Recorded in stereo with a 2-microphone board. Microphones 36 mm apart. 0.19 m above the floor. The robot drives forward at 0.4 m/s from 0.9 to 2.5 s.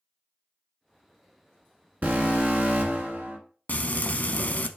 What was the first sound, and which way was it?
An alarm, 55° right (ahead or behind).